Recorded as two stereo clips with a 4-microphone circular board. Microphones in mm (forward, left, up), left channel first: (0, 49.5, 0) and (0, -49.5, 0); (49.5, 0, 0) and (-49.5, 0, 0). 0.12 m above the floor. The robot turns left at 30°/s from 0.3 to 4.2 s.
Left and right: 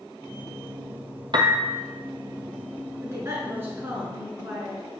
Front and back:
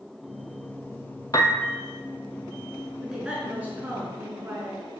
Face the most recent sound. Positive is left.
turn(degrees=-140)